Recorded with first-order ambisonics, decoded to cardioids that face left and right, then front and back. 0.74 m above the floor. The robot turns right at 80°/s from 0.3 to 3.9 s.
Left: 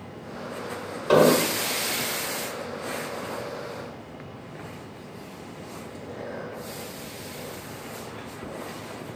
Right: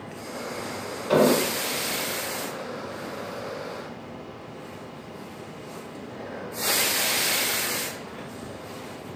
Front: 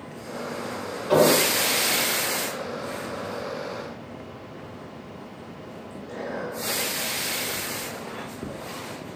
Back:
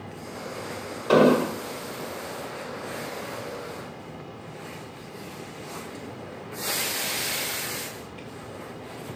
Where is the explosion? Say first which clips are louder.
Left 2 dB, even; 135° left, 1.2 m; by 1.6 s 175° left, 1.2 m.